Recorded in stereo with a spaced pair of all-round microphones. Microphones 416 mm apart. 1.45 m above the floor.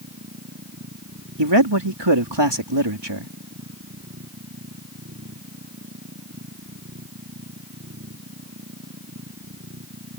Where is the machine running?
35° right (ahead or behind).